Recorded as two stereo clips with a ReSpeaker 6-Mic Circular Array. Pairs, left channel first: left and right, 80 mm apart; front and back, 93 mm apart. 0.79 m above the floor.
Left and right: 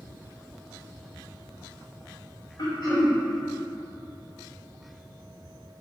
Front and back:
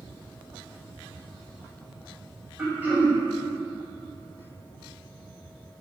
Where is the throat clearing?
110° left, 1.2 m.